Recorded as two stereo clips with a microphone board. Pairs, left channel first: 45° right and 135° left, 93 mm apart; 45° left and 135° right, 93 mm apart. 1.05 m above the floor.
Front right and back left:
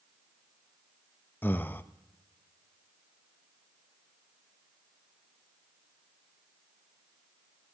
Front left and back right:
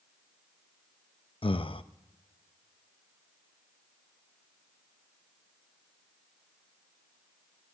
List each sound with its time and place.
1.4 s breathing: 25° left, 0.5 m